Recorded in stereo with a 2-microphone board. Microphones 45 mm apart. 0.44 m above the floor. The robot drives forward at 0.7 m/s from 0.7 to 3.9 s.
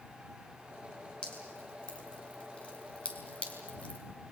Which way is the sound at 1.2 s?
20° left (ahead or behind).